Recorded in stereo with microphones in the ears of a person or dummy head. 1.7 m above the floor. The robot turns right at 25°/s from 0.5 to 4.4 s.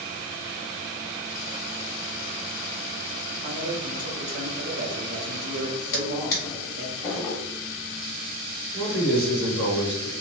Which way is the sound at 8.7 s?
65° right (ahead or behind).